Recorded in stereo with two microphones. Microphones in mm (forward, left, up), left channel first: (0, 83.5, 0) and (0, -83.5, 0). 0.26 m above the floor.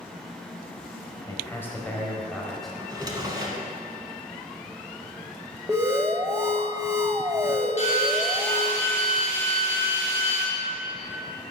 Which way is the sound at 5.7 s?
20° right (ahead or behind).